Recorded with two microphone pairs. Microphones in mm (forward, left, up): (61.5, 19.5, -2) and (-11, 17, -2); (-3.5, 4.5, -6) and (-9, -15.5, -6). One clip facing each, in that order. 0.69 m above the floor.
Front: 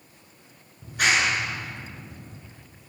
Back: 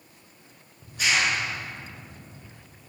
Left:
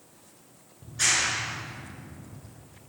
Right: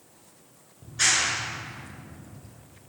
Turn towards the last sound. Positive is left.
turn(degrees=-30)